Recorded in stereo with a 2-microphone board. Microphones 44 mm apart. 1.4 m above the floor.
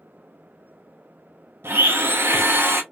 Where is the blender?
60° right (ahead or behind), 0.7 m.